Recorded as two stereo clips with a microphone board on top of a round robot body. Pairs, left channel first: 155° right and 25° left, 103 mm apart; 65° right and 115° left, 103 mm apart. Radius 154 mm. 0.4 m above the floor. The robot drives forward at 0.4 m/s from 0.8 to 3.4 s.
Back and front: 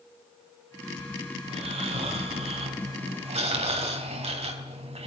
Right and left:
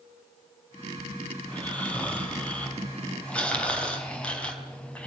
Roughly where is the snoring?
Ahead.